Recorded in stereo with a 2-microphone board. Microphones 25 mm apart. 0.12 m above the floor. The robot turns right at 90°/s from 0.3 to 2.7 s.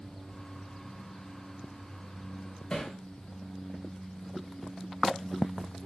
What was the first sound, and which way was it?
Hammering, 35° left (ahead or behind).